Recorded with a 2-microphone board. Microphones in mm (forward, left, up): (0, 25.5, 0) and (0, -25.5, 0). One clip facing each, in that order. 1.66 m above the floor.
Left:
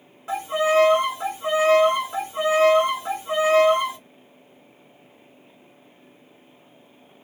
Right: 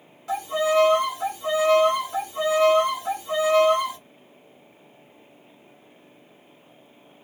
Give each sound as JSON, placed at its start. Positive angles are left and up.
{"t": 0.3, "sound": "a violin", "side_deg": 30, "distance_m": 1.4}